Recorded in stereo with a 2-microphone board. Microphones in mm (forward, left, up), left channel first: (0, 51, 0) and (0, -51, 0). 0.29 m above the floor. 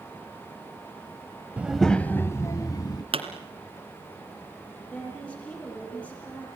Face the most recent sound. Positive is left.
turn(degrees=10)  # may be behind; listen again after turning